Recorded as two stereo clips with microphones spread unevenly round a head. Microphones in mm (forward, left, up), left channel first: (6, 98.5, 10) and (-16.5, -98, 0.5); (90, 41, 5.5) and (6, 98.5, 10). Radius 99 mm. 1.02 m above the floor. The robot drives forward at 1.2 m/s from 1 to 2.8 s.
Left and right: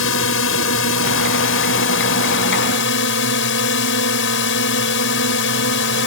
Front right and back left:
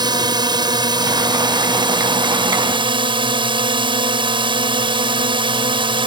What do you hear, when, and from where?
0.0 s a drone: 100° left; by 6.1 s 110° left